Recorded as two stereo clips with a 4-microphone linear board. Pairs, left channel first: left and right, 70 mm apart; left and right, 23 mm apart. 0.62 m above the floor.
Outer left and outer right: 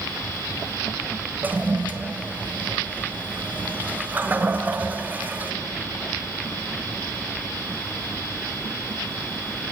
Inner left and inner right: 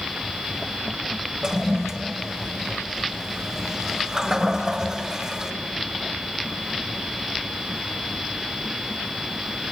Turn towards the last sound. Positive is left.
turn(degrees=-25)  # may be behind; listen again after turning